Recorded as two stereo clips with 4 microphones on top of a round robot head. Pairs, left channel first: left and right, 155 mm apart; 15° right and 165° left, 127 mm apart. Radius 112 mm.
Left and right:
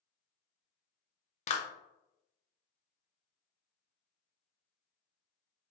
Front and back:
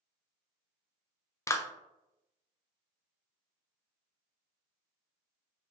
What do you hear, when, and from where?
1.5 s a clap: 55° left, 0.5 m